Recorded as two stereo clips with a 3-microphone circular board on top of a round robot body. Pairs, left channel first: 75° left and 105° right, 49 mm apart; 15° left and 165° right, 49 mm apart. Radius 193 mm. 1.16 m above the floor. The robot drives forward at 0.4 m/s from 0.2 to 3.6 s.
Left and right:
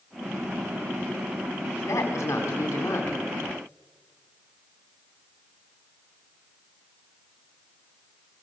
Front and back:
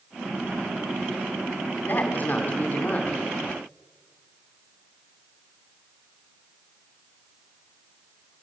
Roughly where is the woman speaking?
Ahead left.